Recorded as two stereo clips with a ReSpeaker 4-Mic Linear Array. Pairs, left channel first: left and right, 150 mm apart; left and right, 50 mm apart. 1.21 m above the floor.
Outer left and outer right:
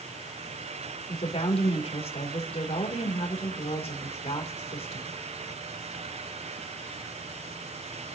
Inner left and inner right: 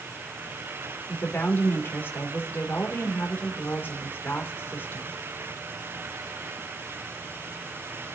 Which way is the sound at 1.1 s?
40° left (ahead or behind).